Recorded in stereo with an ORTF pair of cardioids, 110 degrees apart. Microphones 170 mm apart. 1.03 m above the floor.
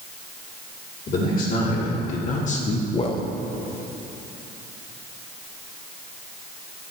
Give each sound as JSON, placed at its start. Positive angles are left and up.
{"t": 1.1, "sound": "a man speaking", "azimuth_deg": 55, "distance_m": 3.0}